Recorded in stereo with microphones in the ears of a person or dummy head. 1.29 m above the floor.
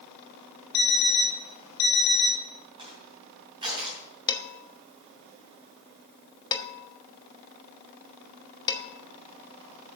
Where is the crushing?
25° right (ahead or behind), 3 m.